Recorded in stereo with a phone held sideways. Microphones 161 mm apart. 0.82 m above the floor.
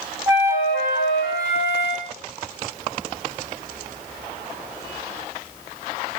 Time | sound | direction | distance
0.3 | a flute | 20° right (ahead or behind) | 1.0 m